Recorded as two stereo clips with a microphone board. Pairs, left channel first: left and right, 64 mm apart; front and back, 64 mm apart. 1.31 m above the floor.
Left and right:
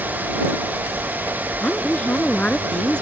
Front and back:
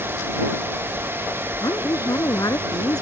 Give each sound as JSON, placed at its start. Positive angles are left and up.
{"t": 1.6, "sound": "a woman speaking", "azimuth_deg": 20}